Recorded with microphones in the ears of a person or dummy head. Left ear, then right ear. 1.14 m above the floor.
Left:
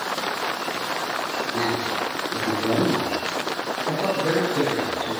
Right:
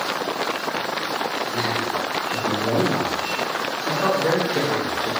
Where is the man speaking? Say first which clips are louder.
Right 1 dB; 10° right (ahead or behind), 1.6 m; by 5.1 s 75° right (ahead or behind), 2 m.